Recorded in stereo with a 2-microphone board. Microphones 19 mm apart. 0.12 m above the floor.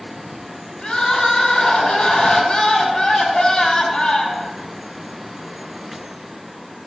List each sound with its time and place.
0.8 s crying: 60° left (ahead or behind), 3.5 m